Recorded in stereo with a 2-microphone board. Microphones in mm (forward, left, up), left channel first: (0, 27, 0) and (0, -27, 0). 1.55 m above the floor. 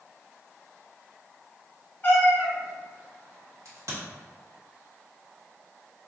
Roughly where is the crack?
Right.